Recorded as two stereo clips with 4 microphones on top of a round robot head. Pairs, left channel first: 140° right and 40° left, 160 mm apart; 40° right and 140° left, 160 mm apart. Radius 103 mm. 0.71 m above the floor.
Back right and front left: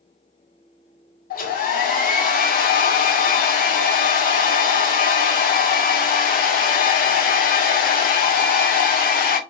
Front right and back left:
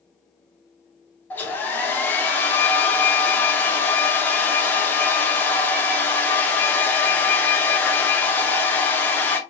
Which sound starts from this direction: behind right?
A hair dryer, at 1.3 s.